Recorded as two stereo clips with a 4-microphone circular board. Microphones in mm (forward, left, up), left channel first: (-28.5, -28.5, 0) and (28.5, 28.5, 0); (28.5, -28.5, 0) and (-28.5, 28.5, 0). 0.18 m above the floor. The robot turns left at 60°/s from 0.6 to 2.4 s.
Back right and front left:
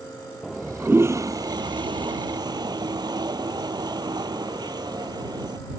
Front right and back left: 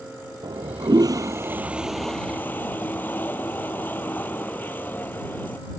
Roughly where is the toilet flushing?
Behind left.